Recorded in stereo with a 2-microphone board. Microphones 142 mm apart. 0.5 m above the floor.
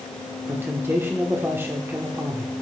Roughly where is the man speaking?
Centre.